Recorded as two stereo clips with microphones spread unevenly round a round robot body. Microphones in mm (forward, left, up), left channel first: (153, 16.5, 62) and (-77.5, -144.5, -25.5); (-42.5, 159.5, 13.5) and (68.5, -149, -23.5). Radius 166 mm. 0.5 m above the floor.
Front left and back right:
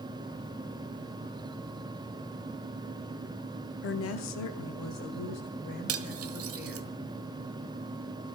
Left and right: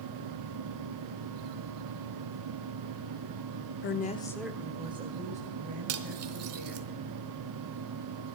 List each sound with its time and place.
3.8 s a woman speaking: 90° left, 0.8 m; by 6.9 s 10° right, 3.5 m
5.9 s cutlery clinking: 115° right, 1.3 m